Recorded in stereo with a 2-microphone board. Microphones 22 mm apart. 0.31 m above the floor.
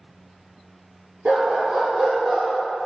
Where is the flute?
No flute in this recording.